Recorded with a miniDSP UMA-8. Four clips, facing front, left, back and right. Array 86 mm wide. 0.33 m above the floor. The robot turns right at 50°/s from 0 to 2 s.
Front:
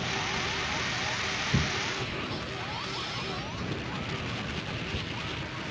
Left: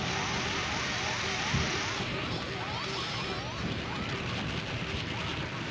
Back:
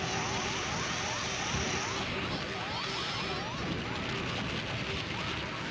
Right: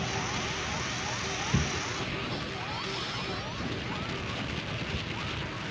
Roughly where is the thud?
Ahead right.